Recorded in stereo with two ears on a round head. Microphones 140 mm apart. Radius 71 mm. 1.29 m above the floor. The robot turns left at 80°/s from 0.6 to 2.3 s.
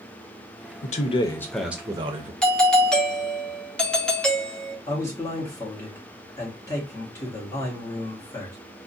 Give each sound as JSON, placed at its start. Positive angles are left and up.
{"t": 0.8, "sound": "a man speaking", "azimuth_deg": 65, "distance_m": 0.6}
{"t": 2.4, "sound": "a doorbell", "side_deg": 5, "distance_m": 0.5}
{"t": 4.9, "sound": "a man speaking", "side_deg": 20, "distance_m": 1.4}